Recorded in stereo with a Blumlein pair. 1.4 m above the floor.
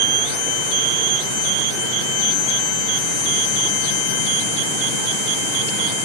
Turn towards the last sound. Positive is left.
No sound to turn to.